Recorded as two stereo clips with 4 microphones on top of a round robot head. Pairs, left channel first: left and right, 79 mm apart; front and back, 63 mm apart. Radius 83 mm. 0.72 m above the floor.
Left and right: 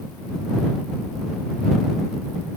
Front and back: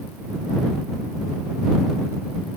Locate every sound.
Only background noise.